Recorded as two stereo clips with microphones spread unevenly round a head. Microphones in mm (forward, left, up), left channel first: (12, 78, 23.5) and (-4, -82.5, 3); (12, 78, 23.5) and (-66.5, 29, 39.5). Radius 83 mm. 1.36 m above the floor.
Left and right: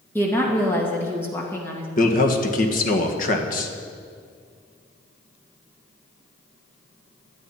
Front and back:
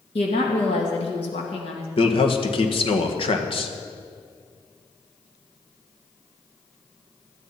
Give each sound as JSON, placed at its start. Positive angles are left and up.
{"t": 0.1, "sound": "a woman speaking", "azimuth_deg": 5, "distance_m": 2.0}
{"t": 2.0, "sound": "a man speaking", "azimuth_deg": 45, "distance_m": 1.7}